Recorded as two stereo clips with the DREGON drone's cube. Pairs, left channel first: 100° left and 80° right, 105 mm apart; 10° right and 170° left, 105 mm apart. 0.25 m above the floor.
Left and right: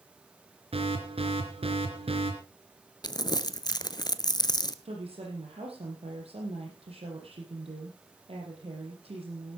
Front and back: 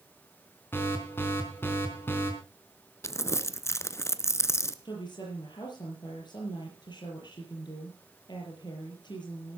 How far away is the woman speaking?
About 6.5 m.